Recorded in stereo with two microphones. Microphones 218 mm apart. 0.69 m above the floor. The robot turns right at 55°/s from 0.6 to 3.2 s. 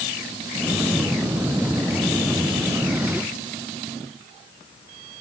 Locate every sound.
Only background noise.